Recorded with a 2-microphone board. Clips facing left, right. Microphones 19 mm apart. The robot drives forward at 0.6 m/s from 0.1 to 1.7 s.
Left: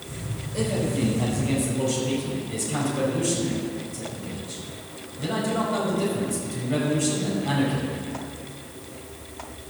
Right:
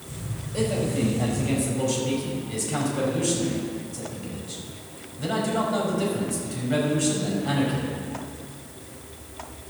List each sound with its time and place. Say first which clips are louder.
0.5 s a man speaking: even; 5° left (ahead or behind), 4 m